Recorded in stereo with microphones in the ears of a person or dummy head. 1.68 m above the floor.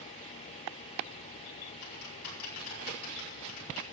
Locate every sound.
1.8 s typing on a keyboard: 80° left, 7 m